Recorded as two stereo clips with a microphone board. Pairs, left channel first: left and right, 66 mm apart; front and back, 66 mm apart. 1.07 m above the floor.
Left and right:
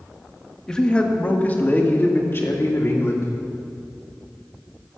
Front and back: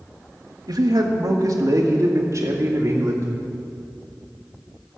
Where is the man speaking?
170° left, 1.3 m; by 3.3 s 135° left, 2.5 m.